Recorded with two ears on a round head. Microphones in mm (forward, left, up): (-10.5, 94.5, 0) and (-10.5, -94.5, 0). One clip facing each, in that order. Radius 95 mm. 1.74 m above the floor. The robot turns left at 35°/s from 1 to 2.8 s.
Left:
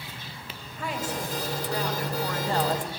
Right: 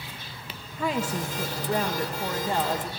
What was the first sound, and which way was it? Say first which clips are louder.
A woman speaking: right 4 dB; 110° right.